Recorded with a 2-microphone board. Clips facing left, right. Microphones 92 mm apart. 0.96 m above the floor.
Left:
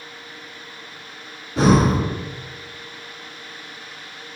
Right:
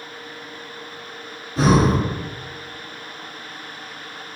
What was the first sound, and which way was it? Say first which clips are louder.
Breathing: left 1 dB; 65° left (ahead or behind).